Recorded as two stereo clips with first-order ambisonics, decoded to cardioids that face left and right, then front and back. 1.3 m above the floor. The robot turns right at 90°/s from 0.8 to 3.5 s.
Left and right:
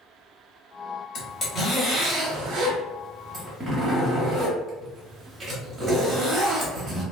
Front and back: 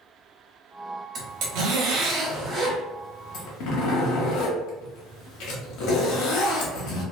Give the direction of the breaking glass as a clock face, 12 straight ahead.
No breaking glass in this recording.